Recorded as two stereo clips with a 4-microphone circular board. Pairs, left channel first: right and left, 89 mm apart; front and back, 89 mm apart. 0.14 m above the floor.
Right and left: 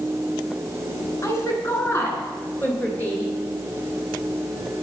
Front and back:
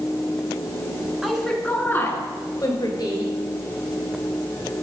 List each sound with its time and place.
1.2 s a woman speaking: 100° right, 1.8 m; by 3.3 s 25° right, 3 m